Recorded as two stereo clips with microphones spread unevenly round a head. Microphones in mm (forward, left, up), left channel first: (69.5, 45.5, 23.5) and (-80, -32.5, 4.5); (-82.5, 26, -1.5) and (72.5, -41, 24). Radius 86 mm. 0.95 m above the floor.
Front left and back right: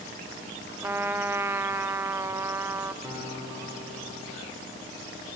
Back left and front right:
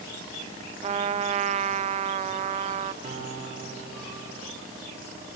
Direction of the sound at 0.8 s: 80° right.